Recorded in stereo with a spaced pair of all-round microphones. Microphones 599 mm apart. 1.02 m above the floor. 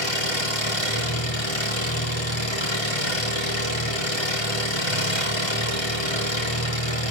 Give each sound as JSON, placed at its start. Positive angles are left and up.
{"t": 0.0, "sound": "an engine running", "side_deg": 45, "distance_m": 5.0}